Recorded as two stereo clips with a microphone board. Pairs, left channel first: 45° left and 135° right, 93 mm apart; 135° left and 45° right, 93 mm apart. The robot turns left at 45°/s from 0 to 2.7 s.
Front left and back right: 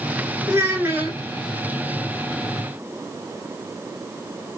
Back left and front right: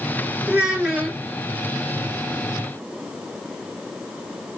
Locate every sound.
0.5 s a child speaking: 100° right, 1.3 m; by 1.2 s 130° right, 1.3 m